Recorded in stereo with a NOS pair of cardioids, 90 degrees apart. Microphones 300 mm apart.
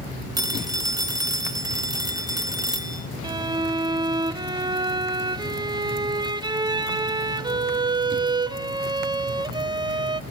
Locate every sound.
0.4 s a phone ringing: 15° right, 1.3 m
3.2 s a violin: 15° right, 1.1 m